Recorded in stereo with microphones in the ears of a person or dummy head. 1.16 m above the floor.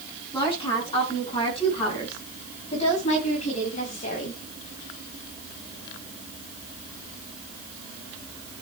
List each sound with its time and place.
0.3 s a woman speaking: 30° left (ahead or behind), 10 m; by 4.4 s 50° left (ahead or behind), 5.5 m